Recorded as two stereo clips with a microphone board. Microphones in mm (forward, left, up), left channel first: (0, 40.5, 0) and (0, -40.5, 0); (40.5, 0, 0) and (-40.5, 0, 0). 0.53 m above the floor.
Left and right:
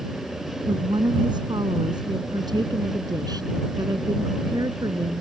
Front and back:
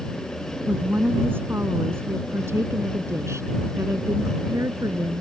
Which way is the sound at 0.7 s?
115° right.